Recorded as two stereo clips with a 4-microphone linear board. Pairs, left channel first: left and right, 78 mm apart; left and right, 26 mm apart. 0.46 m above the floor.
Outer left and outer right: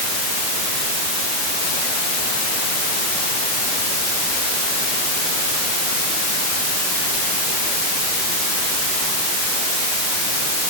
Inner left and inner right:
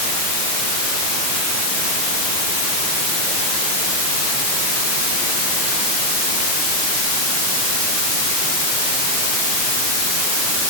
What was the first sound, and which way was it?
Only background noise.